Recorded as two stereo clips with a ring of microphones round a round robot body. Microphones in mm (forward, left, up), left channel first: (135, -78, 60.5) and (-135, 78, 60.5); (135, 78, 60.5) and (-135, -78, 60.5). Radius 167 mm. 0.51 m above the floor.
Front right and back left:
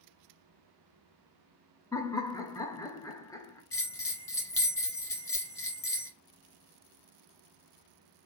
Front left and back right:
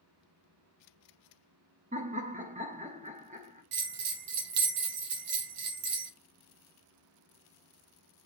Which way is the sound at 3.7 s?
110° right.